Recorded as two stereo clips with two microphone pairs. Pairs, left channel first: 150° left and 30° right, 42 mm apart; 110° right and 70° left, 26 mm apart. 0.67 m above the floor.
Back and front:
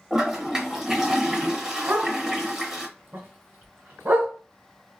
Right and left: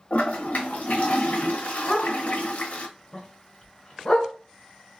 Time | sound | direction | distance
0.1 | a toilet flushing | 105° right | 0.7 m
1.9 | a dog barking | 60° right | 1.1 m